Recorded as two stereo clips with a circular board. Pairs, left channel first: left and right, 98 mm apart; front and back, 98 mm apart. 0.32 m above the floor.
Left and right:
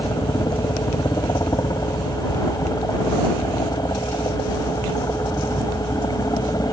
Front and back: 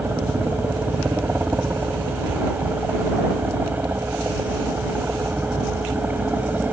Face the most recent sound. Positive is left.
turn(degrees=115)